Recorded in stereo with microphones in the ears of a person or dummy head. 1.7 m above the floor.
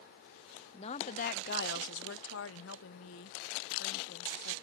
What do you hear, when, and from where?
0.7 s a woman speaking: 30° left (ahead or behind); by 4.5 s 70° left (ahead or behind)